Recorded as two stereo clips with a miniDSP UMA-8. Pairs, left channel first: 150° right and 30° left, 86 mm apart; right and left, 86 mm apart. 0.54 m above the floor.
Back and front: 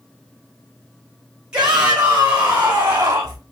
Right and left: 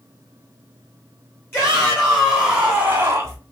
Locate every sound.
1.5 s a shout: 45° right, 1.1 m; by 3.4 s 60° left, 1.1 m